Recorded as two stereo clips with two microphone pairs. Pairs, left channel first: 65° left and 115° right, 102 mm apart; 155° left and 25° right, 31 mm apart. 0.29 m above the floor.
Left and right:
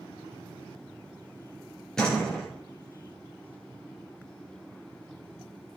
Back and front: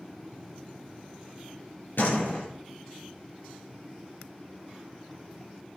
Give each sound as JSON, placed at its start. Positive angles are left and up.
{"t": 2.0, "sound": "a door slam", "azimuth_deg": 150, "distance_m": 4.5}